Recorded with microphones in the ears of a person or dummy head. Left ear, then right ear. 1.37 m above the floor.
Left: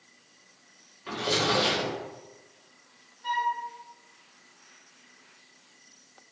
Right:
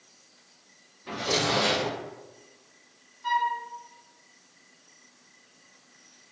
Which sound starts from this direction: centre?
A flute, at 3.2 s.